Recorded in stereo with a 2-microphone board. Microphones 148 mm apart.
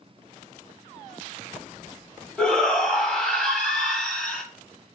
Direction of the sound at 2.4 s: 5° left (ahead or behind).